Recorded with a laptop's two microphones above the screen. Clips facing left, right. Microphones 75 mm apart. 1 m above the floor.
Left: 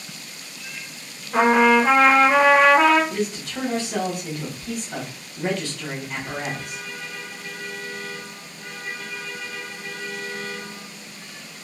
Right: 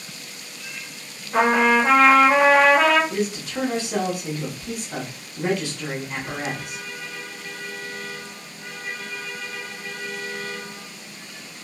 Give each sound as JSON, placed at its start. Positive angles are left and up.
{"t": 1.3, "sound": "a trumpet", "side_deg": 5, "distance_m": 0.7}
{"t": 3.1, "sound": "a man speaking", "side_deg": -15, "distance_m": 0.8}